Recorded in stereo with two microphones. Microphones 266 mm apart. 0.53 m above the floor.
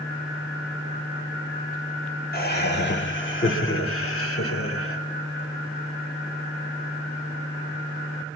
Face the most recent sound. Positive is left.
turn(degrees=55)  # may be behind; listen again after turning